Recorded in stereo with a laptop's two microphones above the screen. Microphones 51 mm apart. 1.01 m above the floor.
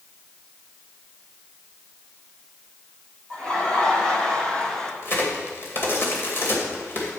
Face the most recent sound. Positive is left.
turn(degrees=45)  # may be behind; listen again after turning